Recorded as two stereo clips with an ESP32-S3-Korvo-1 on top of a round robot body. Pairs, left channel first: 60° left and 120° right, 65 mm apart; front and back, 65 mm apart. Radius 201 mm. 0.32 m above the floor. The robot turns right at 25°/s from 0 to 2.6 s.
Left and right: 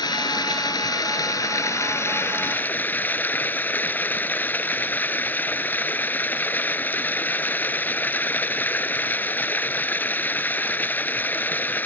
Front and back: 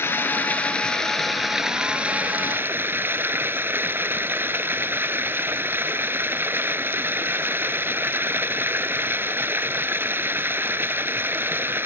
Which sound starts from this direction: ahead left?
Running water, at 0.0 s.